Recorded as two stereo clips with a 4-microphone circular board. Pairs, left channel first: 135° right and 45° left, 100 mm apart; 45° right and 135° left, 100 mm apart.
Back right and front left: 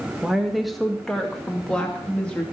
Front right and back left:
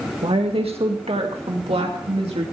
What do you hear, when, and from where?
0.2 s a woman speaking: 130° left, 1.6 m; by 2.4 s 145° left, 2.5 m